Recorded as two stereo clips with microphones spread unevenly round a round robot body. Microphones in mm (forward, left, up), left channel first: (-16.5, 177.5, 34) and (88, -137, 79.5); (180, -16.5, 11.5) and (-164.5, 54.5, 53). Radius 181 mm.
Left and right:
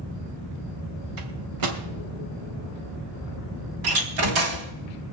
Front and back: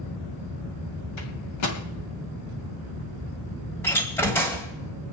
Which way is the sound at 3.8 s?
95° right.